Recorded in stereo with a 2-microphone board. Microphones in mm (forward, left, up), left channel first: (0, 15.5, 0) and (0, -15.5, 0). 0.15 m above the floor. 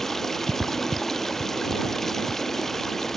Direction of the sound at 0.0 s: 10° left (ahead or behind).